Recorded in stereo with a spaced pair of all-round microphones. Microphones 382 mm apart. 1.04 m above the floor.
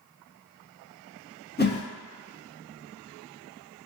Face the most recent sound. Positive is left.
turn(degrees=25)  # may be behind; listen again after turning